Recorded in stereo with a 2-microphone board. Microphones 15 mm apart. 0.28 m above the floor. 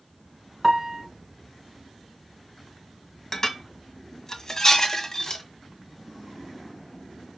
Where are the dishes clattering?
40° left (ahead or behind), 1.3 m.